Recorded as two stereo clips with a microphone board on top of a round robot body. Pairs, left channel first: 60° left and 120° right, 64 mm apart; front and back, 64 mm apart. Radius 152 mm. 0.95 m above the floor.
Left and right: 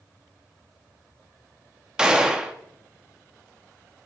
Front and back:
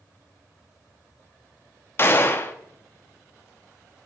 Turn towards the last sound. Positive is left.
turn(degrees=-45)